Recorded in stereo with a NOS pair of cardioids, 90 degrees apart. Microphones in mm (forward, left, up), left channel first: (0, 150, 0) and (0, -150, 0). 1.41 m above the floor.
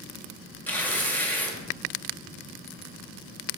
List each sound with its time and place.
0.7 s tearing paper: 5° left, 1.8 m